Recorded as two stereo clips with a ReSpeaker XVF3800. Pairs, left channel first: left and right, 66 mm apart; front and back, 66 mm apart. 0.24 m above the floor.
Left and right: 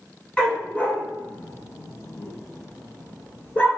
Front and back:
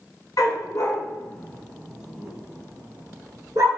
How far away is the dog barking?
About 1.0 m.